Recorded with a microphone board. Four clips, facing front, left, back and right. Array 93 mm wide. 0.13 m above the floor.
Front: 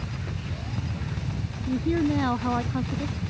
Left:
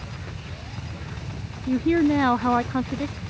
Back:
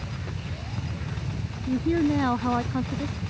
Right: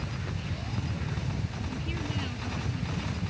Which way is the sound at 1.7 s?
95° left.